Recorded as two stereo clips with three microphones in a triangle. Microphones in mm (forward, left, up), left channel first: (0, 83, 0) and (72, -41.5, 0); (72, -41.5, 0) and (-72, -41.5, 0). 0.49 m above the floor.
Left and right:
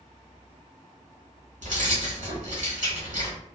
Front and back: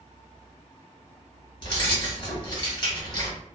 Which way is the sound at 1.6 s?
55° right.